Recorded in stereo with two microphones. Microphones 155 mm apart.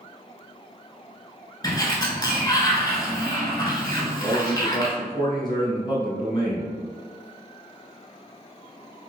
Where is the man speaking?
30° left (ahead or behind), 1.2 m.